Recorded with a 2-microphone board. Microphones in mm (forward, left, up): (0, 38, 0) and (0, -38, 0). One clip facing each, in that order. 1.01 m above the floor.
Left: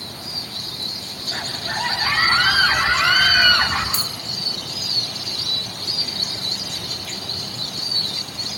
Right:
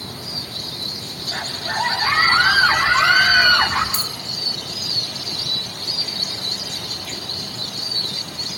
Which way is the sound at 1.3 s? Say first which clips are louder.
Right 2 dB; 5° right (ahead or behind).